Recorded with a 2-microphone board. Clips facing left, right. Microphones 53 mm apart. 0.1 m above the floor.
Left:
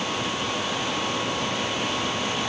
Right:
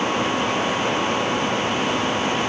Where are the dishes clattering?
I don't hear dishes clattering.